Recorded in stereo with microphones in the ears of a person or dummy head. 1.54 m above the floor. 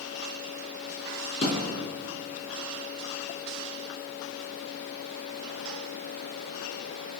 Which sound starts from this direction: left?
A thud, at 1.4 s.